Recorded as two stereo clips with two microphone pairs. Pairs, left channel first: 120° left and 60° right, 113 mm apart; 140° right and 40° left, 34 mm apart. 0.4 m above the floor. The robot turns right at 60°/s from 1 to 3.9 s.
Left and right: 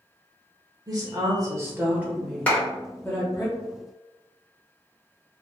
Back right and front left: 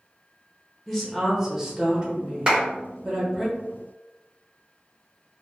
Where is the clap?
50° left, 1.1 m; by 2.6 s 55° left, 1.1 m.